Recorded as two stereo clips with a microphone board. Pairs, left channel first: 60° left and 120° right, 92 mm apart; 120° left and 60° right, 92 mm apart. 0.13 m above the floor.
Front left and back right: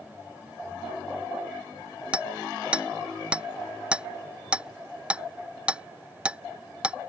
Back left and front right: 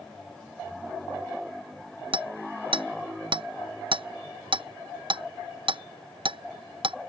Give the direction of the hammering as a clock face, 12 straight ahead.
1 o'clock.